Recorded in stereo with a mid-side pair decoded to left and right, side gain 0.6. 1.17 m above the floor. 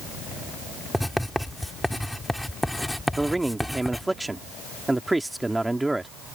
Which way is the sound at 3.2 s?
10° right.